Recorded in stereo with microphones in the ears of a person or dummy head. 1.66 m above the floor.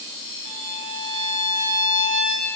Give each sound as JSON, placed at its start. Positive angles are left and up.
{"t": 0.5, "sound": "a violin", "side_deg": 40, "distance_m": 5.0}